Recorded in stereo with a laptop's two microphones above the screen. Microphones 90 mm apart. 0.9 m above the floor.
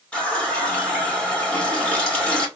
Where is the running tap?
10° left (ahead or behind), 1.3 m.